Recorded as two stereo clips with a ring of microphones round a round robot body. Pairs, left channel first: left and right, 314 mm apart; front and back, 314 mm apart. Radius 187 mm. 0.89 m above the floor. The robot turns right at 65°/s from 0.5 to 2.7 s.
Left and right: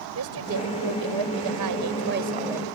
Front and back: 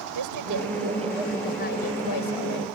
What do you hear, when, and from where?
0.1 s a woman speaking: 140° right; by 2.6 s straight ahead